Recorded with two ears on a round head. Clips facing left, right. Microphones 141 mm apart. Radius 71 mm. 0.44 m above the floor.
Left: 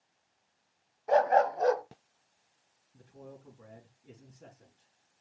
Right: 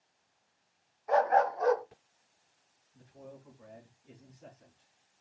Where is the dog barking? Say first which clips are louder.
Left 2 dB; 30° left (ahead or behind), 1.0 m.